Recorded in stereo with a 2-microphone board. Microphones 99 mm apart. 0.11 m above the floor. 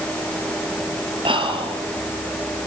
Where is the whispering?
55° right (ahead or behind), 3 m.